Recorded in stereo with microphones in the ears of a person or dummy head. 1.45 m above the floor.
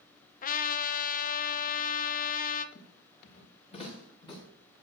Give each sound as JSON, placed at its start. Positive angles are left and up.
{"t": 0.4, "sound": "a trumpet", "side_deg": 45, "distance_m": 0.6}
{"t": 2.8, "sound": "footsteps", "side_deg": 40, "distance_m": 6.0}